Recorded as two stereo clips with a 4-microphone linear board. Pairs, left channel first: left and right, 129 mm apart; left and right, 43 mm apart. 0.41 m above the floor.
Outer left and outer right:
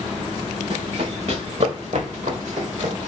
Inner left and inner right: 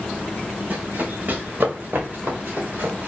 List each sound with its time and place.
0.7 s running footsteps: 50° right (ahead or behind), 3.5 m; by 3.1 s 65° right (ahead or behind), 5 m